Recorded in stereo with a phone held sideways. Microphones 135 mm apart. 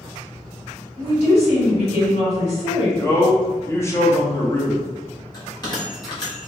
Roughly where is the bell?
Left.